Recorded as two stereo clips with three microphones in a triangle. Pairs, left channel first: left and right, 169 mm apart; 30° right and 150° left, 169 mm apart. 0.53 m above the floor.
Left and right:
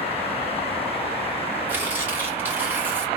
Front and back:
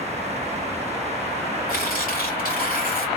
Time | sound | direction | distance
1.7 | tearing paper | 15° right | 2.5 m